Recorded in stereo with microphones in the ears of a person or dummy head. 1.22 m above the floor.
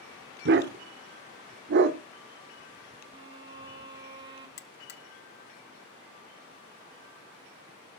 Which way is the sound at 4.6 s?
45° left (ahead or behind).